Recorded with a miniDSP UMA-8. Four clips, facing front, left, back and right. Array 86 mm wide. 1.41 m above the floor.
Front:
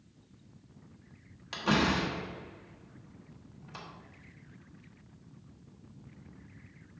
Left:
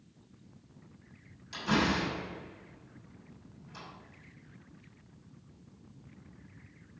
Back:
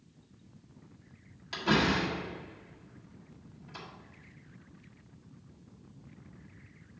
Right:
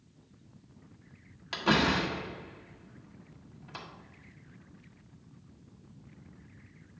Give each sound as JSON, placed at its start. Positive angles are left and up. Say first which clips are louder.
{"t": 1.5, "sound": "a door slam", "louder": "right 2 dB, back 1 dB", "azimuth_deg": -75, "distance_m": 1.5}